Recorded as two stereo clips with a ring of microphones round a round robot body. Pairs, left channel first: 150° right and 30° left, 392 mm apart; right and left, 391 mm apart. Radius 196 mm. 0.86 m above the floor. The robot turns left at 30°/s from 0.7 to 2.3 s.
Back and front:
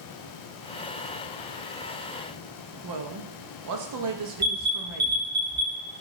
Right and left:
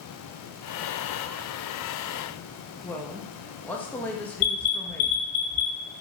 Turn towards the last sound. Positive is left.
turn(degrees=-65)